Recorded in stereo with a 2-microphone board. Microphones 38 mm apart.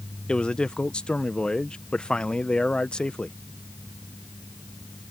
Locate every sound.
0.3 s a man speaking: 25° left (ahead or behind)